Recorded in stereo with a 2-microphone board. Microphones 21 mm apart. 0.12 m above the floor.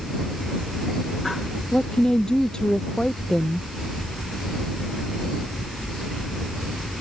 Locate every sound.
1.7 s a woman speaking: 40° left (ahead or behind)